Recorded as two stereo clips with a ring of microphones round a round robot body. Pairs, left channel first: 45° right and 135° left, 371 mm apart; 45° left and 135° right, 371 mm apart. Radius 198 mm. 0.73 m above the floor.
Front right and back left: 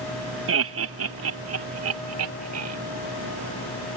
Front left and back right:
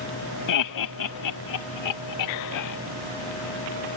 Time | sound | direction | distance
0.5 | laughter | 80° left | ?